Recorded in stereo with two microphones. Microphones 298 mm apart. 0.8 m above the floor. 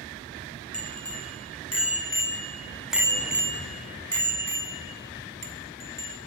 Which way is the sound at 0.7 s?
65° left (ahead or behind).